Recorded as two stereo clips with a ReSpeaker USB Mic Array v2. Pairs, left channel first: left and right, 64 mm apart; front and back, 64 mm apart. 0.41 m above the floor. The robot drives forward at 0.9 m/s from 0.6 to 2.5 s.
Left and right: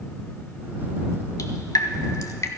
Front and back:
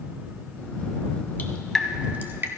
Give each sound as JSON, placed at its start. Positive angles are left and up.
{"t": 1.4, "sound": "dripping", "azimuth_deg": 60, "distance_m": 0.8}